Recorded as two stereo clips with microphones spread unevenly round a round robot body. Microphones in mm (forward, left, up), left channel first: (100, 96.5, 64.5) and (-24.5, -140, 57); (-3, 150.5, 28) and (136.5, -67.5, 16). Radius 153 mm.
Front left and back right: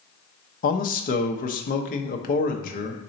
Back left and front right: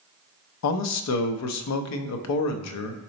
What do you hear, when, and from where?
0.6 s a man speaking: 120° left, 0.5 m